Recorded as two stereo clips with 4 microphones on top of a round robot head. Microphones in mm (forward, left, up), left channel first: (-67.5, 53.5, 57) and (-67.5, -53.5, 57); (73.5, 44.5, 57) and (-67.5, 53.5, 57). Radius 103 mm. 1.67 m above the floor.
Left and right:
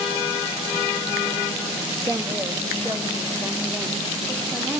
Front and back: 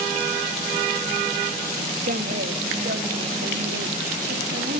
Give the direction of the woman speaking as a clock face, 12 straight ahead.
5 o'clock.